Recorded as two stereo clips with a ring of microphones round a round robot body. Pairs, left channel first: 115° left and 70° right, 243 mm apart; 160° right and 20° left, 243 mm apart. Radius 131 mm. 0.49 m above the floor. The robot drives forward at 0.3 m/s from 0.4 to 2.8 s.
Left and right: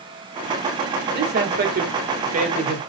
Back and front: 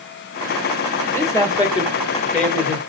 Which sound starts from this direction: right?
A man speaking, at 1.1 s.